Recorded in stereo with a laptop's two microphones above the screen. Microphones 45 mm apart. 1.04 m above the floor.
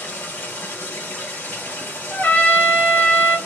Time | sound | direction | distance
0.0 | running water | 65° left (ahead or behind) | 1.4 m
2.1 | a trumpet | 45° left (ahead or behind) | 1.1 m